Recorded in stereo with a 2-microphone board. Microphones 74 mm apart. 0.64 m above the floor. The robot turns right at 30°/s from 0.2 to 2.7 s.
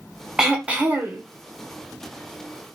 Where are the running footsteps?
No running footsteps in this recording.